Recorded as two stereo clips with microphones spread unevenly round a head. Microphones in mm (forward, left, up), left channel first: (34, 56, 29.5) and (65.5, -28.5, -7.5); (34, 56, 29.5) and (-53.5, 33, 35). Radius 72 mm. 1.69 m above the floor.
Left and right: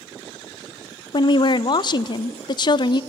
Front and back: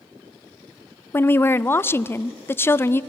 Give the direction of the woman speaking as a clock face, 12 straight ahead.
9 o'clock.